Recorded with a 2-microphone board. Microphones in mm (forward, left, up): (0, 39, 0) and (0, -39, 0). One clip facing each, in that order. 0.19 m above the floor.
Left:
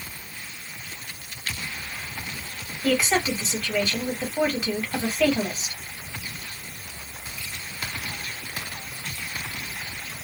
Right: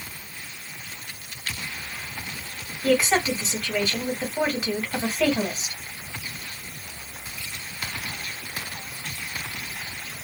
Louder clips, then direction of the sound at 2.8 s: Right 2 dB; 5° right (ahead or behind).